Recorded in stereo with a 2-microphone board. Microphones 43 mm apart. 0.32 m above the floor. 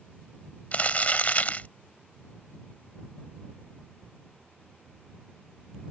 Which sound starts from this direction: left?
Crumpling, at 0.7 s.